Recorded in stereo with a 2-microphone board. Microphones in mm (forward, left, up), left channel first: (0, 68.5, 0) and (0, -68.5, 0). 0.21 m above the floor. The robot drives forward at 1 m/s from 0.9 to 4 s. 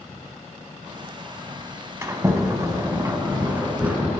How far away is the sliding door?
About 1.0 m.